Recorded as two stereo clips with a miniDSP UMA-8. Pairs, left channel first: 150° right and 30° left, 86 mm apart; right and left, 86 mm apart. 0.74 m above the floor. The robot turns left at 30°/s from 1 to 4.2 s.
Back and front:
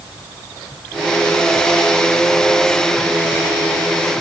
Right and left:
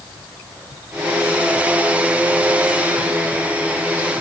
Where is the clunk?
I don't hear a clunk.